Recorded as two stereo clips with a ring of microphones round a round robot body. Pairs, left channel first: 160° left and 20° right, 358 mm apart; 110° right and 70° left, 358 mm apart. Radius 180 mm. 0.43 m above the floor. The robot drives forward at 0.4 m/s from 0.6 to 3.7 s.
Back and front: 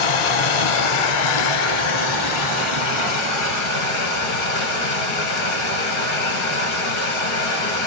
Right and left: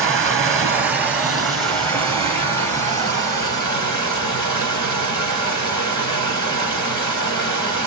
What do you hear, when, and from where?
0.0 s running water: 150° left, 1.0 m; by 7.9 s 165° left, 2 m